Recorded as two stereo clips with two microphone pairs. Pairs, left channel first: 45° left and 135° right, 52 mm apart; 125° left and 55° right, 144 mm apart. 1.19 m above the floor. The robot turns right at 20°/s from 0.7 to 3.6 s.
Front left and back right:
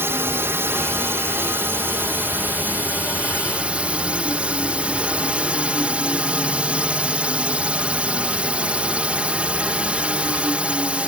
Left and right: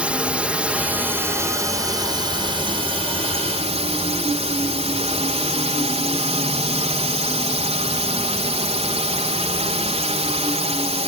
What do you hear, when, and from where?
0.0 s a drone: 135° right; by 11.1 s 80° right